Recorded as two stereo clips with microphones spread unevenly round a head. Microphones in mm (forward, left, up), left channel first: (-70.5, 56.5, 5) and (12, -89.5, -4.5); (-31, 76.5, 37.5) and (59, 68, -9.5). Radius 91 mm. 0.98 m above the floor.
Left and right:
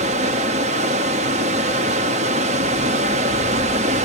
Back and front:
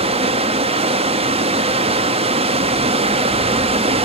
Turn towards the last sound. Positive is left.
turn(degrees=-5)